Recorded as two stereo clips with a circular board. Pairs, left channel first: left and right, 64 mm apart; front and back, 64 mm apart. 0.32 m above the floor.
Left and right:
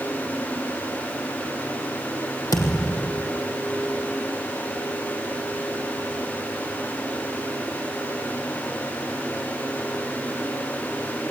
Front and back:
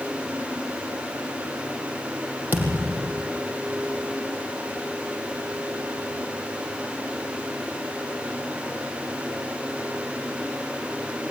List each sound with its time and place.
2.5 s a thud: 120° left, 4 m